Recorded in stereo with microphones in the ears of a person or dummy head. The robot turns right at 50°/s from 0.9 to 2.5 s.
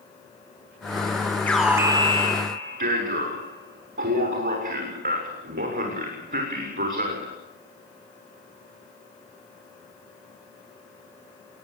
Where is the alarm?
175° left, 6.5 m; by 7.4 s 135° right, 6.5 m.